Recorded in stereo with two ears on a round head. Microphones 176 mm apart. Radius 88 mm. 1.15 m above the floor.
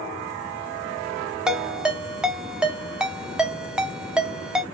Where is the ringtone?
5° right (ahead or behind), 0.7 m.